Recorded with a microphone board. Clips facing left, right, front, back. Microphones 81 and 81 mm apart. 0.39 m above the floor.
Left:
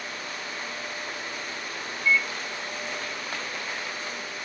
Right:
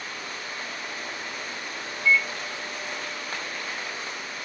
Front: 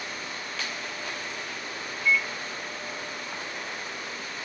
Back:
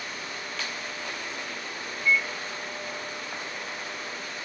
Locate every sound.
2.0 s a microwave: 130° left, 1.2 m